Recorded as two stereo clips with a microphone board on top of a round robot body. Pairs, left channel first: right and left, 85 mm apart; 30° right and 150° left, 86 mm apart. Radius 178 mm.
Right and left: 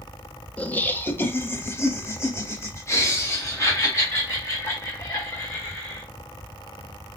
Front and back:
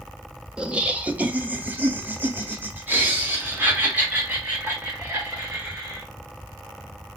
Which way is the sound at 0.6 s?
145° right.